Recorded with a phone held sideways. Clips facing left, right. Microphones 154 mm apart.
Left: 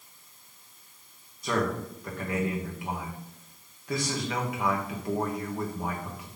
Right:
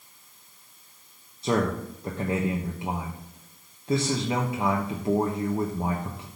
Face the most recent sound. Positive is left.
turn(degrees=-25)  # may be behind; listen again after turning